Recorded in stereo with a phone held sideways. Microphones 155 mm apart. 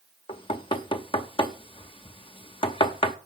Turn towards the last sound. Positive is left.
turn(degrees=35)  # may be behind; listen again after turning